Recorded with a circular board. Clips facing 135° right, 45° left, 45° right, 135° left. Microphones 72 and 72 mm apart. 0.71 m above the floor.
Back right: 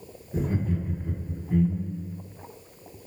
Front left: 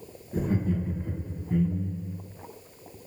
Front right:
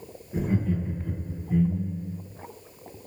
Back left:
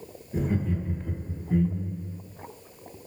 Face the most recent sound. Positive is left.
turn(degrees=145)